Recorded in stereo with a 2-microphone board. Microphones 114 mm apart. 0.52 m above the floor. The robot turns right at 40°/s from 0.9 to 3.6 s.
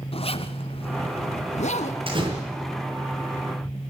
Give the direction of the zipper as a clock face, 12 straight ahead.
10 o'clock.